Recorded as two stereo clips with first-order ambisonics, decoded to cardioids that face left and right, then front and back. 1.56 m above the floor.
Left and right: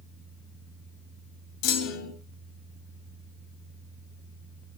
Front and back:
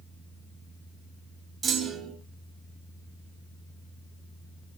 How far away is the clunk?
About 2.5 m.